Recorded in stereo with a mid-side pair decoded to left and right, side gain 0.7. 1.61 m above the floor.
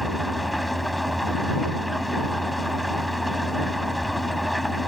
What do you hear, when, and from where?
0.0 s an engine running: 5° left